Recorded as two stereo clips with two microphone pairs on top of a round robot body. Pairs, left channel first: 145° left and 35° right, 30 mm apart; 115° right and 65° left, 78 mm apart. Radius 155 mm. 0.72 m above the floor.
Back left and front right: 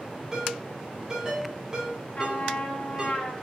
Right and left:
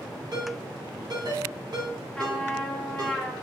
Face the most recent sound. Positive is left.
turn(degrees=160)